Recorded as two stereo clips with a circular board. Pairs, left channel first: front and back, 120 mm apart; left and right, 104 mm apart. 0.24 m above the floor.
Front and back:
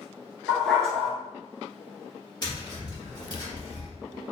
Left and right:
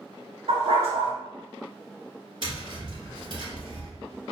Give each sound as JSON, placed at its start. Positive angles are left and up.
{"t": 0.5, "sound": "a dog barking", "azimuth_deg": -85, "distance_m": 1.1}
{"t": 2.4, "sound": "tapping", "azimuth_deg": -55, "distance_m": 1.4}